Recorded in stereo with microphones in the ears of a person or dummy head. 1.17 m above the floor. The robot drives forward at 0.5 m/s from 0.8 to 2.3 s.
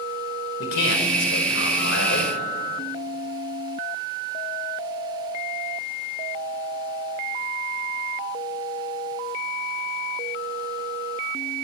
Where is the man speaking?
85° left, 5 m; by 2.3 s 80° left, 5 m.